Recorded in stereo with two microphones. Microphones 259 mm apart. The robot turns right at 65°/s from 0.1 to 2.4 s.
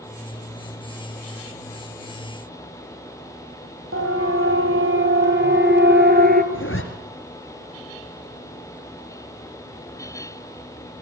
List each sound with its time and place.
3.9 s a siren: 60° right (ahead or behind), 3.5 m; by 6.4 s 35° right (ahead or behind), 1.7 m
6.5 s a zipper: 55° left (ahead or behind), 2.5 m